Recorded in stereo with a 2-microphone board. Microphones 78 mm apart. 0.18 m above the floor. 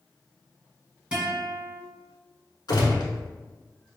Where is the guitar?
15° right (ahead or behind), 1.2 m.